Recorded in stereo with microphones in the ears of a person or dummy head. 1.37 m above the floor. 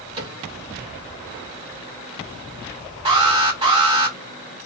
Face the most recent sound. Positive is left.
turn(degrees=-25)  # may be behind; listen again after turning